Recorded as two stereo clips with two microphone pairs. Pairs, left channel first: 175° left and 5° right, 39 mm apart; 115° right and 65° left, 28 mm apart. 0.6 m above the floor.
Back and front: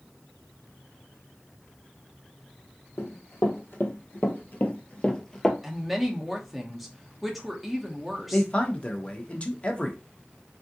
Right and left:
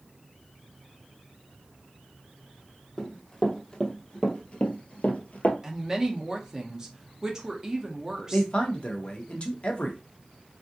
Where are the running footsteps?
170° left, 1.6 m; by 5.5 s 100° right, 0.9 m.